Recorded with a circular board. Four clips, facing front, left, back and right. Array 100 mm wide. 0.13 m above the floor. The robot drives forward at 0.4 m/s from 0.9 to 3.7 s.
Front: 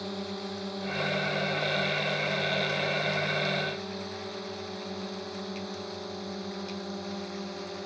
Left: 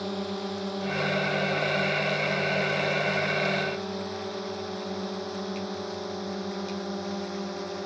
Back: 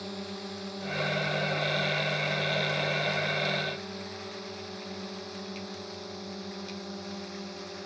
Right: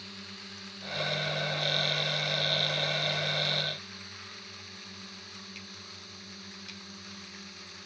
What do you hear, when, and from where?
0.0 s a drone: 75° left